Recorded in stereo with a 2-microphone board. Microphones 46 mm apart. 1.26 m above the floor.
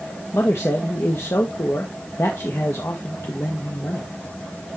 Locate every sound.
0.3 s a man speaking: 70° left (ahead or behind), 1.4 m